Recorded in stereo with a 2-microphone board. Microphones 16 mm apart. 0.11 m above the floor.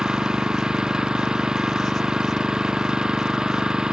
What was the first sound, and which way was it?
An engine running, 60° right (ahead or behind).